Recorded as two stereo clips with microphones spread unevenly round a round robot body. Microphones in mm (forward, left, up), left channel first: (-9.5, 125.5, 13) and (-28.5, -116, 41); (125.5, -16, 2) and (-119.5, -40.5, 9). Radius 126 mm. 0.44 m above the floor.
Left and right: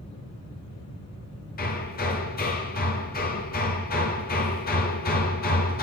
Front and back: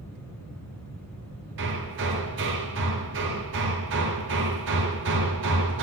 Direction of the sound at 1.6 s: 140° left.